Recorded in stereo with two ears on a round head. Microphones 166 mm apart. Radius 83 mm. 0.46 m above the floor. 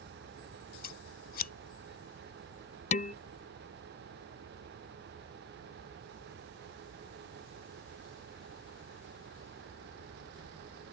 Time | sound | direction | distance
0.8 | scissors | 50° left (ahead or behind) | ?
2.9 | dishes clattering | 35° left (ahead or behind) | ?